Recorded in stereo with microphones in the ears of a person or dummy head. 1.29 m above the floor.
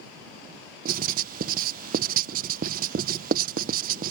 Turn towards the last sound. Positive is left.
turn(degrees=-50)  # may be behind; listen again after turning